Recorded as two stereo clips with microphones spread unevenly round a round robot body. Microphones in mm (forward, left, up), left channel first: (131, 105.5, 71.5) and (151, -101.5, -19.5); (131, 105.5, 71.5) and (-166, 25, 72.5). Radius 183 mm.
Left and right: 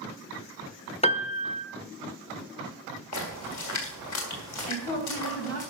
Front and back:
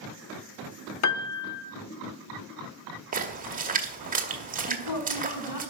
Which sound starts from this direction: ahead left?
A woman speaking, at 4.7 s.